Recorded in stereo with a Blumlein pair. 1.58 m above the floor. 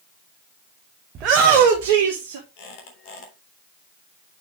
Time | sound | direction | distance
1.1 | a shout | 30° right | 1.3 m
2.6 | a squeak | 45° left | 3.5 m